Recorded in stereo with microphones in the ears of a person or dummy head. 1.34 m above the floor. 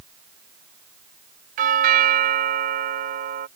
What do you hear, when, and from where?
1.6 s a doorbell: 40° right (ahead or behind)